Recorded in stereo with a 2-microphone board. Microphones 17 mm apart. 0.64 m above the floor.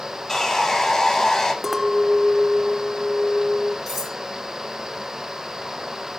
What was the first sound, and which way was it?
Sawing, 20° left (ahead or behind).